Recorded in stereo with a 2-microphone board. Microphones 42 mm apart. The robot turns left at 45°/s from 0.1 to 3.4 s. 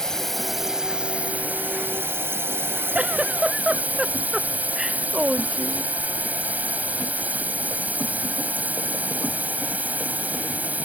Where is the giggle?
35° right (ahead or behind); by 5.9 s 15° right (ahead or behind).